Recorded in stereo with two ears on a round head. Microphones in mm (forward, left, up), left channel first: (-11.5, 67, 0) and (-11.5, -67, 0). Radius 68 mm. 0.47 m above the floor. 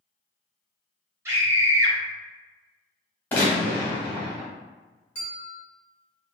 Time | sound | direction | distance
1.2 | a scream | 20° right (ahead or behind) | 1.1 m
3.3 | a gunshot | 10° left (ahead or behind) | 1.2 m
5.2 | a bell | 10° left (ahead or behind) | 1.2 m